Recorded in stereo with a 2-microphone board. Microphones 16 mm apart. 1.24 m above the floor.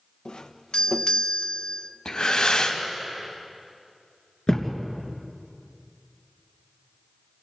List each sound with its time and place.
0.2 s a doorbell: 70° left (ahead or behind), 1.2 m
2.0 s breathing: 75° left (ahead or behind), 3 m
4.5 s a thud: 60° left (ahead or behind), 3 m